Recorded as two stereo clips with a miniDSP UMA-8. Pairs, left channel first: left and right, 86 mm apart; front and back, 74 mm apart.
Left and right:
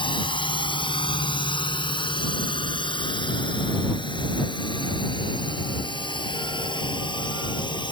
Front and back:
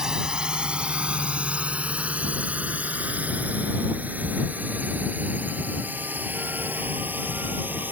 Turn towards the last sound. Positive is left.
turn(degrees=115)